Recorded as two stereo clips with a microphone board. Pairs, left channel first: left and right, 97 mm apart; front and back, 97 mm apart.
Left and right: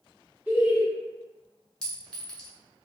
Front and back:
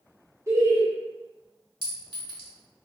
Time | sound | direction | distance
0.5 | laughter | 145° right | 1.0 m
1.8 | a clink | 170° left | 1.0 m